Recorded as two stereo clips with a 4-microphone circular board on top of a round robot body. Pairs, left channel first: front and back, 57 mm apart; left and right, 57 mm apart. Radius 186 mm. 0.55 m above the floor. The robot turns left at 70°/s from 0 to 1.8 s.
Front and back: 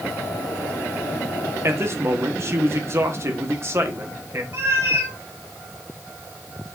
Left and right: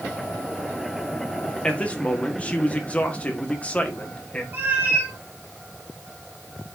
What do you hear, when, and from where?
1.6 s a man speaking: 165° left, 1.9 m; by 4.4 s 150° left, 1.9 m
4.5 s a cat meowing: 145° right, 2.5 m